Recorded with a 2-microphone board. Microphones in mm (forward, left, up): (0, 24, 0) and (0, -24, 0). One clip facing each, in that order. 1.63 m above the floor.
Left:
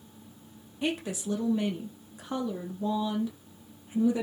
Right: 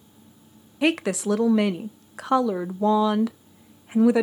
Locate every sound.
0.8 s a woman speaking: 80° right, 0.6 m